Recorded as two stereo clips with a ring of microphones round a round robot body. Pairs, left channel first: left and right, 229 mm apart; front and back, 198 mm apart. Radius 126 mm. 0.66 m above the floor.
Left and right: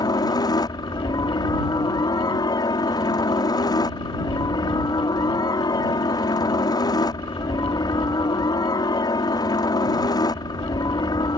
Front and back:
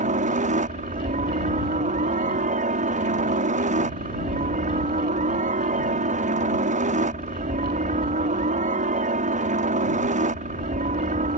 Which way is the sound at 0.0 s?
155° left.